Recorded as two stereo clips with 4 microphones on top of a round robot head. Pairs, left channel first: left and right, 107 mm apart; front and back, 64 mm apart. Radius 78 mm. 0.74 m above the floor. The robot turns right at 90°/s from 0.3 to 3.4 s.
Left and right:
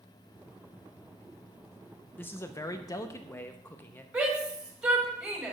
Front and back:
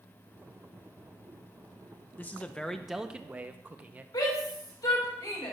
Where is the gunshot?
No gunshot in this recording.